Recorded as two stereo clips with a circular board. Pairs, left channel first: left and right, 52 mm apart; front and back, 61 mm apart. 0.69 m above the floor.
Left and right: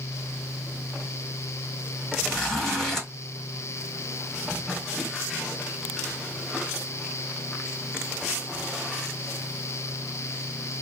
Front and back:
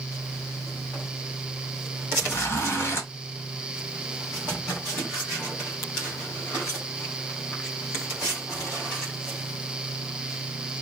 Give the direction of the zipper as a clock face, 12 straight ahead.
12 o'clock.